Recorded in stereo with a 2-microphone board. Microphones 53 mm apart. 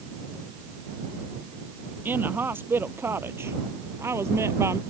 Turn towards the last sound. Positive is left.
turn(degrees=-60)  # may be behind; listen again after turning